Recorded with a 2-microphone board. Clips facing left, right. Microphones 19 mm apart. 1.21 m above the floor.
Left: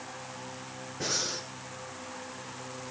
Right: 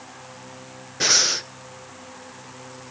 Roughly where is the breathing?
Right.